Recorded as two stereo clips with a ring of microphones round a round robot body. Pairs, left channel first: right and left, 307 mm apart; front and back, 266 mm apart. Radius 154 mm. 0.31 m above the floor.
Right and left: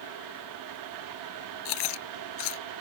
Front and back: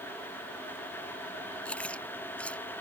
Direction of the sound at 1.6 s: 85° right.